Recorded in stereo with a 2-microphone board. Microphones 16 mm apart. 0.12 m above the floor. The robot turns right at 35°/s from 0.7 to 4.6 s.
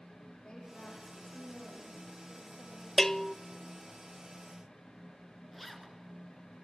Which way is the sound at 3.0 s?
15° left (ahead or behind).